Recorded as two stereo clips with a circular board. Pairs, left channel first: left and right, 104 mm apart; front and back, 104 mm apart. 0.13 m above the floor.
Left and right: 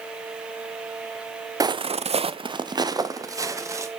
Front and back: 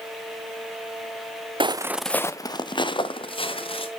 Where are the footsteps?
145° right, 0.5 m; by 3.9 s 30° right, 2 m.